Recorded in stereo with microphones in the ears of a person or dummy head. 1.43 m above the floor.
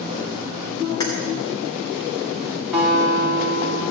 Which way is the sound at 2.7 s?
Centre (ahead or behind).